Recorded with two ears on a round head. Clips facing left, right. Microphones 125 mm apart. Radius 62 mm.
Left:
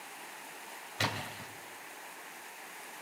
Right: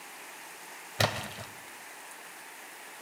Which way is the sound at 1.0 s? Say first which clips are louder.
Right 6 dB; 65° right (ahead or behind).